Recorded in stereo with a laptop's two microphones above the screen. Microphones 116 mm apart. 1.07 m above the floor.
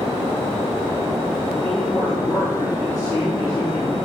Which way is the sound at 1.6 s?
25° left (ahead or behind).